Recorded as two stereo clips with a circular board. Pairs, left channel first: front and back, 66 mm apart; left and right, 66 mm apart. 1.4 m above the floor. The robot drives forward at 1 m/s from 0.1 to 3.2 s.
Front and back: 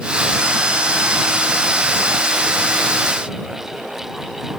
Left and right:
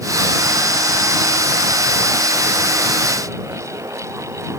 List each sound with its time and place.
Only background noise.